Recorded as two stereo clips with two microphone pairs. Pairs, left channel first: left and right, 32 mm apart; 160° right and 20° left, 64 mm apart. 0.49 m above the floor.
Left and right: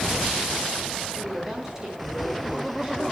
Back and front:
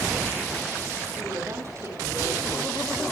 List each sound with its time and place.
1.1 s a woman speaking: 15° right, 6 m